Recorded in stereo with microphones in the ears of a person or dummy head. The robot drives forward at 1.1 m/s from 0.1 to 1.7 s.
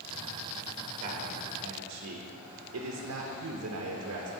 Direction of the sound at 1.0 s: 40° right (ahead or behind).